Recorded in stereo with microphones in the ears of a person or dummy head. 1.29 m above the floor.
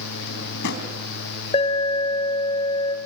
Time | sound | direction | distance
0.2 | a drawer | 55° left (ahead or behind) | 3.5 m
1.5 | an alarm | 35° left (ahead or behind) | 3 m